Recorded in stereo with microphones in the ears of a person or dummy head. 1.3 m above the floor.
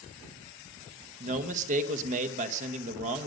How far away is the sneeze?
No sneeze in this recording.